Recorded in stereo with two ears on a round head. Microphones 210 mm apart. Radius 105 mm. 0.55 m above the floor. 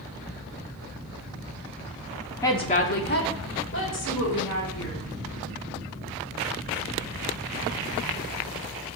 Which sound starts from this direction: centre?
A woman speaking, at 2.4 s.